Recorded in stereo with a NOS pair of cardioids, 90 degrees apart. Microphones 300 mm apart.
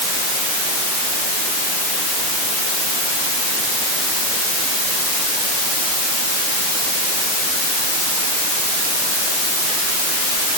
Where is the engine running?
I don't hear an engine running.